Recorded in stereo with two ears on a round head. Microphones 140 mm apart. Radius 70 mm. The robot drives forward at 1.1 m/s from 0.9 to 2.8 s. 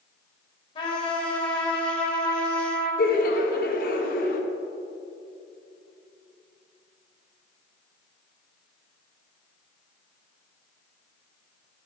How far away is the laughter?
About 1.2 m.